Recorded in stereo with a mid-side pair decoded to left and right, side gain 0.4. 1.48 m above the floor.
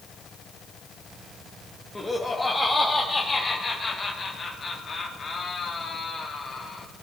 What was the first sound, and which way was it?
Laughter, 10° left.